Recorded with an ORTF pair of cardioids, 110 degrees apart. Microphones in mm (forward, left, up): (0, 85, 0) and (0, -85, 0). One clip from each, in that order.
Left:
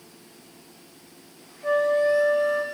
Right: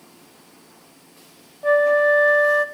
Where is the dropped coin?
No dropped coin in this recording.